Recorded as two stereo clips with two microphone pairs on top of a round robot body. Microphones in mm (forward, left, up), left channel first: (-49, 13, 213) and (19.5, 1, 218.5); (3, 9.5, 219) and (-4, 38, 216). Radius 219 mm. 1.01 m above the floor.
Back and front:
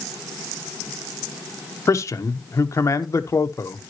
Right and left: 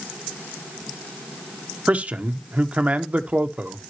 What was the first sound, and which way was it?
A man speaking, 130° left.